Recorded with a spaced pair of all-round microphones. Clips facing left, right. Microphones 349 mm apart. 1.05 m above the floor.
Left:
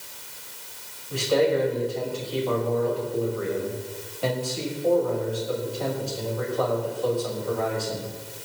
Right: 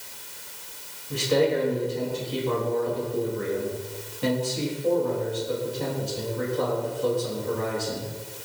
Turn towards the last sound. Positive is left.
turn(degrees=-30)  # may be behind; listen again after turning